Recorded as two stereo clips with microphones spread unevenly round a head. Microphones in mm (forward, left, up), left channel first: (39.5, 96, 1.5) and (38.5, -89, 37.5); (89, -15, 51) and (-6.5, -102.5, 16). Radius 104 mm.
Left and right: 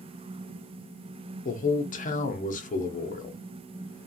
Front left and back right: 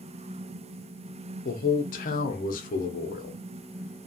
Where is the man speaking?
65° left, 0.7 m.